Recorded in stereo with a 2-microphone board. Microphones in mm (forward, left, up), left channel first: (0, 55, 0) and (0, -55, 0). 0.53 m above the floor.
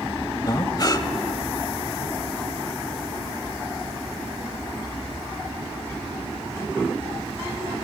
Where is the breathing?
35° left (ahead or behind), 1.0 m.